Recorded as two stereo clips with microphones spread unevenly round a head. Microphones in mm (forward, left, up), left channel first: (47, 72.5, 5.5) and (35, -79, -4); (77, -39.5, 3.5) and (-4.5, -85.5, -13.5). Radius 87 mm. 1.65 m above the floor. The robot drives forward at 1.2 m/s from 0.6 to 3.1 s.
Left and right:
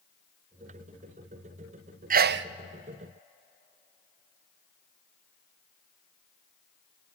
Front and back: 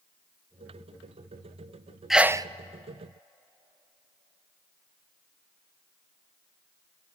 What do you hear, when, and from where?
2.1 s a sneeze: 60° right, 0.7 m; by 2.5 s 100° right, 0.6 m